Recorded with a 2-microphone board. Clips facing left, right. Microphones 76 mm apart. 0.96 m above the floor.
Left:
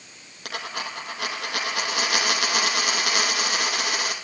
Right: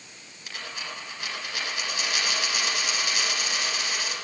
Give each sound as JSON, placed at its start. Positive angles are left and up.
{"t": 0.5, "sound": "a dropped coin", "side_deg": 80, "distance_m": 6.0}